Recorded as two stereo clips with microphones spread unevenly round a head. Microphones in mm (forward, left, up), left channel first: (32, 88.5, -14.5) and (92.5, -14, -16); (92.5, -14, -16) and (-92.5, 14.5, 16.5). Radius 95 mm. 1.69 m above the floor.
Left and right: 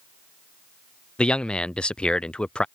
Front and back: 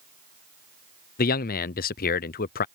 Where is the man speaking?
40° left.